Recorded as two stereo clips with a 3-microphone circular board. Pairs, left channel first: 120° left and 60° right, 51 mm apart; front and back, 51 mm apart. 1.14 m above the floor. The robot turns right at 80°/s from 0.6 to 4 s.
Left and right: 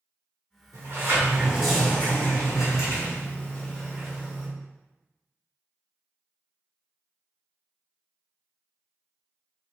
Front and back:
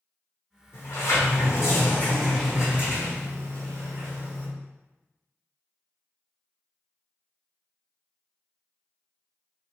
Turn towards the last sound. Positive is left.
turn(degrees=-145)